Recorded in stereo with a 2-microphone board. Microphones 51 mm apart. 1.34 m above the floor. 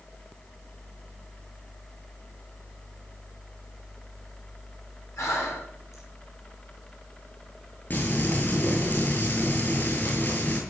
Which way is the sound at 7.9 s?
40° left (ahead or behind).